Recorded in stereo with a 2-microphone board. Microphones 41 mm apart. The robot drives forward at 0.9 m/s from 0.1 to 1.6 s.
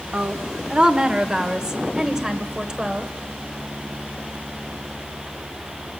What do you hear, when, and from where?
0.1 s a woman speaking: 35° right (ahead or behind), 1.0 m; by 3.1 s 20° right (ahead or behind), 1.9 m